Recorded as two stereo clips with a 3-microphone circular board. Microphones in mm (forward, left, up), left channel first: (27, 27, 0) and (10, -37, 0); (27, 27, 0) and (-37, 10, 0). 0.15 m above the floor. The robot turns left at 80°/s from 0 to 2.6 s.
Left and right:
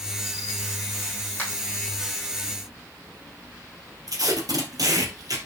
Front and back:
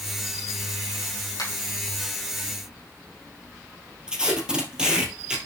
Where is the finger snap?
15° left, 5 m; by 1.5 s 5° left, 5 m.